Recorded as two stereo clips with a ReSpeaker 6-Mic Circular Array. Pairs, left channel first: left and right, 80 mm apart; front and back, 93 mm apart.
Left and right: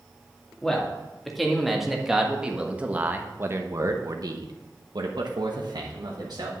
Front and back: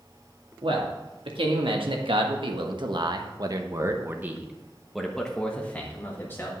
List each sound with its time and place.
0.6 s a man speaking: 170° left, 2 m; by 6.5 s 60° right, 1.6 m